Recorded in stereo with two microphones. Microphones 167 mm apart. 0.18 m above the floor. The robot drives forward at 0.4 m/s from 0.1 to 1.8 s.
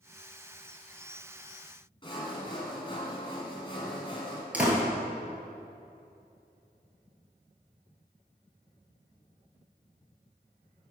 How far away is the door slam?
About 2.0 m.